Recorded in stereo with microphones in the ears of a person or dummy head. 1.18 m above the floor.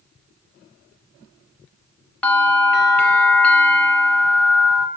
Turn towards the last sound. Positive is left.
turn(degrees=10)  # may be behind; listen again after turning